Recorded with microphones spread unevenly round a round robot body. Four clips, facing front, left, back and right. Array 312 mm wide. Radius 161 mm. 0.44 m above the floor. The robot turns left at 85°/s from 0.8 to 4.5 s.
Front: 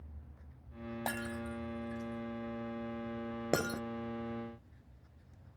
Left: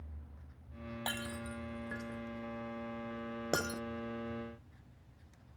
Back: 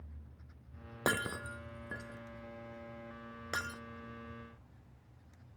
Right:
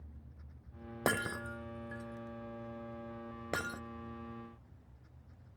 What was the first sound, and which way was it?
Breaking glass, 130° right.